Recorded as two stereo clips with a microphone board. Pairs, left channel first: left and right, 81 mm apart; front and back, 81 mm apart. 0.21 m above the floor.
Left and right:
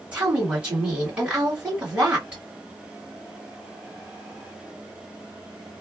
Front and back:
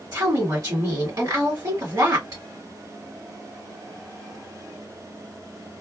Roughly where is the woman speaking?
Behind.